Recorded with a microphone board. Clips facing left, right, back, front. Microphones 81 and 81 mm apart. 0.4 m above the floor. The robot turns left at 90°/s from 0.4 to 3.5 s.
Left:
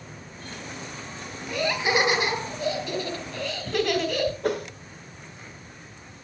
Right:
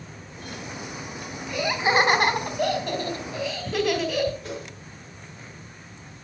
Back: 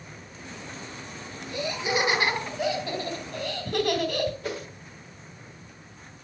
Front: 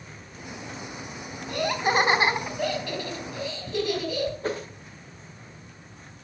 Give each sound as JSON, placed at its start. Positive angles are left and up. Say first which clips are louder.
{"t": 1.5, "sound": "laughter", "louder": "right 1 dB, front 4 dB", "azimuth_deg": 15, "distance_m": 2.5}
{"t": 4.4, "sound": "a whoosh", "louder": "left 8 dB, front 3 dB", "azimuth_deg": 55, "distance_m": 1.4}